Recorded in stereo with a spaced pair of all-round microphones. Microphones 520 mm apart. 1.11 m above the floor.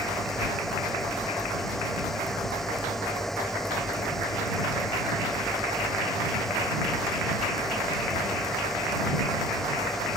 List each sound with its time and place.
0.0 s a fan: centre (ahead or behind)